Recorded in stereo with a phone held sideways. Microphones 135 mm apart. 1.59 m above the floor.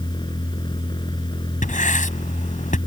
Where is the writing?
70° left (ahead or behind).